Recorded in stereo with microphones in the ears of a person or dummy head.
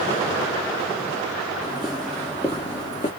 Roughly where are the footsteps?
Centre.